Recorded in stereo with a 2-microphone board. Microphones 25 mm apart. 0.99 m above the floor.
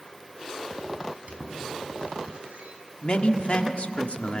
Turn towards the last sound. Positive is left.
turn(degrees=45)  # may be behind; listen again after turning